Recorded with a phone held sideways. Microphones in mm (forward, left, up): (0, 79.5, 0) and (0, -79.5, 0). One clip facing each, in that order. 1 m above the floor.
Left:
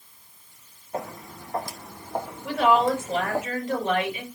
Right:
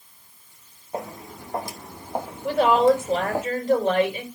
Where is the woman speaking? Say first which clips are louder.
Right 4 dB; 40° right (ahead or behind), 4.5 m.